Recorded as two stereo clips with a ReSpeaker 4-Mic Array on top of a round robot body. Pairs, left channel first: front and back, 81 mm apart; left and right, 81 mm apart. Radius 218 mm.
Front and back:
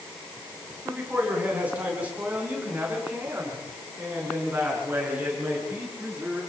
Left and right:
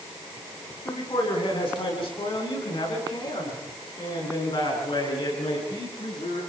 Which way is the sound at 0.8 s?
110° left.